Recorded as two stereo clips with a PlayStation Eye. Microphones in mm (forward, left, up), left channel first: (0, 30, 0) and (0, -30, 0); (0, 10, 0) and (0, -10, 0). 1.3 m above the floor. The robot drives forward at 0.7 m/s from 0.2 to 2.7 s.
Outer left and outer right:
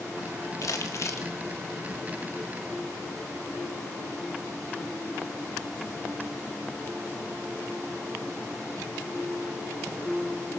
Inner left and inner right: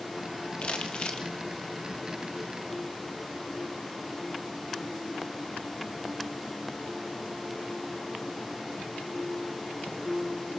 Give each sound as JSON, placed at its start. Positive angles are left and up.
{"t": 0.6, "sound": "crumpling", "side_deg": 65, "distance_m": 1.9}